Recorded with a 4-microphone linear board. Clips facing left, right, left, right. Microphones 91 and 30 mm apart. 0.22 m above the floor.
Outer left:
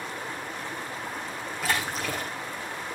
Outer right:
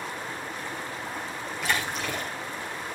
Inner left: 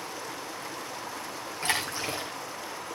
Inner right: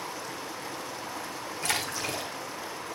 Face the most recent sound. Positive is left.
turn(degrees=35)  # may be behind; listen again after turning